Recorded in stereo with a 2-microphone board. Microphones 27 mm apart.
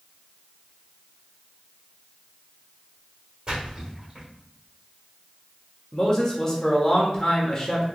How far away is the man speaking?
About 0.9 m.